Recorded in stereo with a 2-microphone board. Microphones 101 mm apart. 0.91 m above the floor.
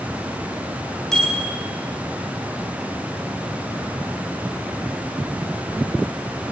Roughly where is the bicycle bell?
Centre.